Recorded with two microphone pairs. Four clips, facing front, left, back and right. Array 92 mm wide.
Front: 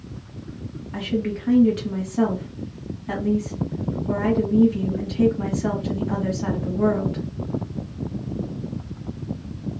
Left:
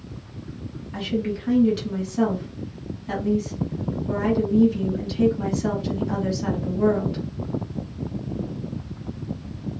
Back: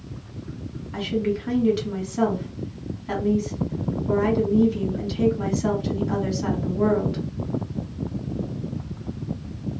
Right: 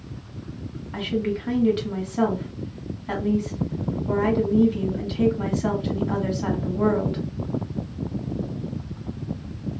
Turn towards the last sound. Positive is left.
turn(degrees=-95)